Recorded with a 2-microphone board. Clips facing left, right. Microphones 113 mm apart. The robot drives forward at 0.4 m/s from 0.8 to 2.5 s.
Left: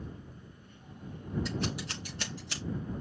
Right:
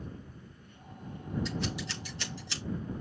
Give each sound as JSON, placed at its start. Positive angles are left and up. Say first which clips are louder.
{"t": 1.4, "sound": "scissors", "louder": "left 1 dB", "side_deg": 50, "distance_m": 5.0}